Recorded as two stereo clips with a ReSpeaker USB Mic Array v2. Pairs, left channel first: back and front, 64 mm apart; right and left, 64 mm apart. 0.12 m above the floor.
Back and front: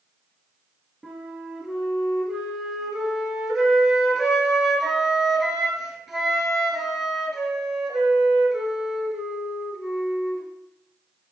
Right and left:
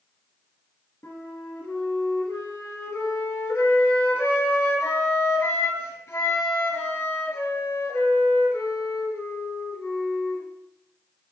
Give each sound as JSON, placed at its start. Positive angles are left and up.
{"t": 1.0, "sound": "a flute", "azimuth_deg": -80, "distance_m": 1.1}